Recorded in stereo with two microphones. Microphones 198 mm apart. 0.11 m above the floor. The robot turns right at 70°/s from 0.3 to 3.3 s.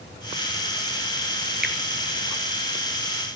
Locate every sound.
1.6 s a finger snap: 50° right (ahead or behind), 1.4 m